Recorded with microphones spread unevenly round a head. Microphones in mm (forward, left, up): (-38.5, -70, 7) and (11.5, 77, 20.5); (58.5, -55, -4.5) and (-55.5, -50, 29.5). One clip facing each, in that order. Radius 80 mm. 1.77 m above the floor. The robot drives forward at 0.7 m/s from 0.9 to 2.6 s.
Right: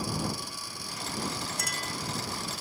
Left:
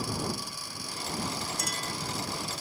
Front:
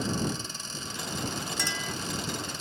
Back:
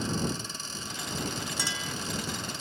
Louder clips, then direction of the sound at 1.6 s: Left 1 dB, front 1 dB; 125° right.